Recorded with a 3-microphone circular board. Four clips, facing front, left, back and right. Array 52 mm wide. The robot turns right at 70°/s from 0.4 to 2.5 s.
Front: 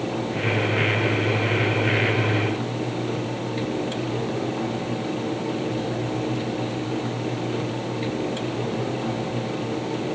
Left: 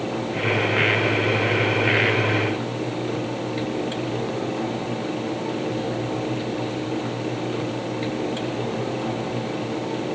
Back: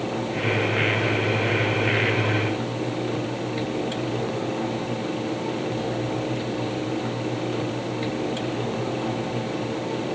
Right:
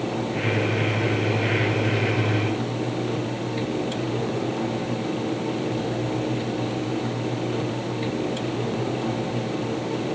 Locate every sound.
Only background noise.